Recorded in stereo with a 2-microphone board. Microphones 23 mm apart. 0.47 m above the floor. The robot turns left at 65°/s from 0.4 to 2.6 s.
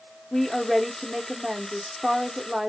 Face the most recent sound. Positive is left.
turn(degrees=-20)  # may be behind; listen again after turning